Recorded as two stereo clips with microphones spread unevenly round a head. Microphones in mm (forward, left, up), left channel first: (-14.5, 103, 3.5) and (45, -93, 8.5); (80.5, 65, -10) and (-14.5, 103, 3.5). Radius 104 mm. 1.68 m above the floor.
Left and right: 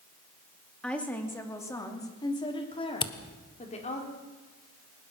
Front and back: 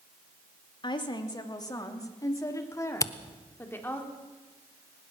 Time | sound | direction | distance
0.8 | a woman speaking | 20° left | 2.5 m
3.0 | a camera shutter | 40° left | 1.1 m